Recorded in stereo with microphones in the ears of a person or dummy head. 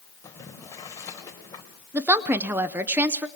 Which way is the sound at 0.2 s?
20° left (ahead or behind).